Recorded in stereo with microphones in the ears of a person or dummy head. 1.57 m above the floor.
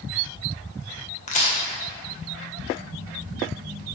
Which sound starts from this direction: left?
A crack, at 1.3 s.